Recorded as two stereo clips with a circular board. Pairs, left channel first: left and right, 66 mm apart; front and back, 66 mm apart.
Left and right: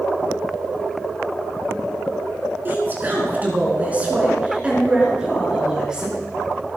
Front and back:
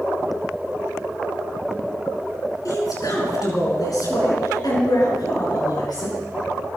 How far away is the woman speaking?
About 5.5 m.